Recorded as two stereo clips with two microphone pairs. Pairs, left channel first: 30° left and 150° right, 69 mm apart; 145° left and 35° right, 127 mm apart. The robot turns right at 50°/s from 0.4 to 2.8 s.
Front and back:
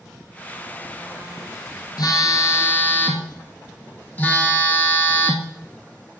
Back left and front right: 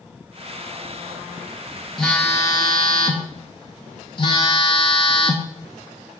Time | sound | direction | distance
2.0 | a phone buzzing | 55° left | 1.0 m